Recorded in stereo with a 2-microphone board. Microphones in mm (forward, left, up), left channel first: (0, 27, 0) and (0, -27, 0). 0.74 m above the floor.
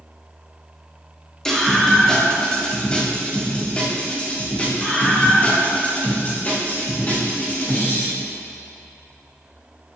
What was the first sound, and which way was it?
A scream, 10° left (ahead or behind).